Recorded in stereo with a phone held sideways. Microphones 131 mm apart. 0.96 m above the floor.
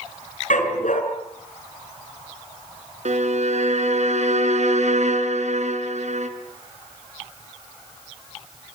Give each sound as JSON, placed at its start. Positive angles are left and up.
{"t": 0.5, "sound": "a dog barking", "side_deg": 70, "distance_m": 5.0}
{"t": 3.0, "sound": "a violin", "side_deg": -60, "distance_m": 2.5}